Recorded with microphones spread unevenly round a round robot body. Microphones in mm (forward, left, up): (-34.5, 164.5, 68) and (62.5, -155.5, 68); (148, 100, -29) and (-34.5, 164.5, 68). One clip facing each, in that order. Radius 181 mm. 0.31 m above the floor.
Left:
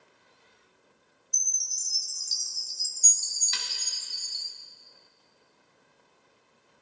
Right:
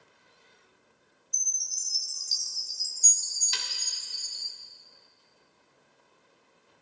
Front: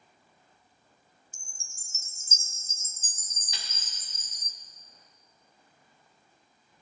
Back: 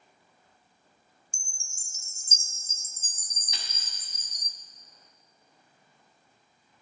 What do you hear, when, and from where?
1.3 s a chime: 50° left, 0.6 m
3.5 s a snare drum: 105° right, 1.0 m